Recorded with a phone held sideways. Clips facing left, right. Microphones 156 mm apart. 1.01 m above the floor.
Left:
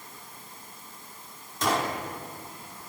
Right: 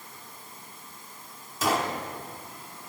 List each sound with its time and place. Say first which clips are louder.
1.6 s a gunshot: even; 5° right (ahead or behind), 1.5 m